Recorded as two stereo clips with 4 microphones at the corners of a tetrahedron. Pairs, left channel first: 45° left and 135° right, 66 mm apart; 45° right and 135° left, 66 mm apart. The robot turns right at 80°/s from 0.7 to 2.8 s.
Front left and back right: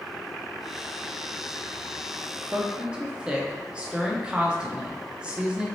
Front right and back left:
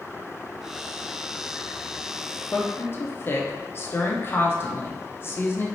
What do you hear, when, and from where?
2.5 s a woman speaking: 90° right, 0.6 m; by 5.7 s 70° right, 0.6 m